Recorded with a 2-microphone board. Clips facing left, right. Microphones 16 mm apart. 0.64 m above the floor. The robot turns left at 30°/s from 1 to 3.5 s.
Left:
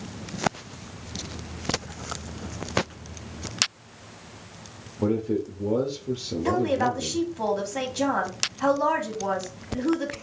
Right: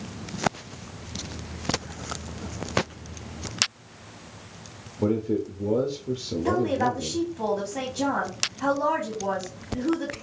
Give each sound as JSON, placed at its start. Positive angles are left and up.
{"t": 5.0, "sound": "a man speaking", "side_deg": 10, "distance_m": 0.7}
{"t": 6.5, "sound": "a woman speaking", "side_deg": 25, "distance_m": 1.4}